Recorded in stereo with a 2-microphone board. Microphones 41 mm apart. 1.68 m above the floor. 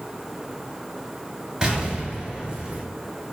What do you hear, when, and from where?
1.6 s an explosion: 25° right (ahead or behind), 1.7 m